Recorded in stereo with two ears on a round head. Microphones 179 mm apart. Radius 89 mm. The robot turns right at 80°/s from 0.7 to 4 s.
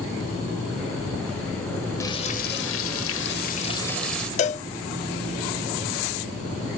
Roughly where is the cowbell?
Left.